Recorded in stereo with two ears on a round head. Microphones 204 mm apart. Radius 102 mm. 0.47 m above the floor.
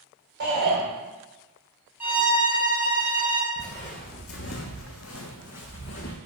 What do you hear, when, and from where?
0.4 s a shout: 50° right (ahead or behind), 2.5 m
2.0 s a violin: 10° right (ahead or behind), 2 m
3.6 s footsteps: 25° left (ahead or behind), 1.4 m; by 6.2 s 60° left (ahead or behind), 1.8 m